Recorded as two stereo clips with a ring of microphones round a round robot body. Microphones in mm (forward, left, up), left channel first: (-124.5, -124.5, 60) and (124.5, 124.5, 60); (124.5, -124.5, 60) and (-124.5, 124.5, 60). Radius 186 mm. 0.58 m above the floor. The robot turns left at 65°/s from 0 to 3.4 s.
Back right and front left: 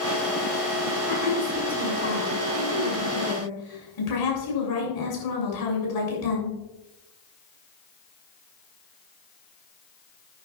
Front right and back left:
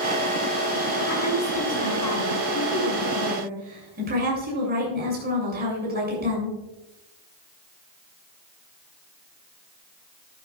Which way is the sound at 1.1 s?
10° right.